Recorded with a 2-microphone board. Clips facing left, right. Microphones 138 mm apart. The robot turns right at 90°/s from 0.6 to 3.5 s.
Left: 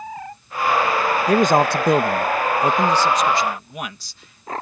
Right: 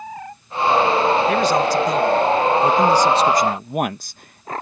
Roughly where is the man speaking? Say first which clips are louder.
Left 1 dB; ahead left.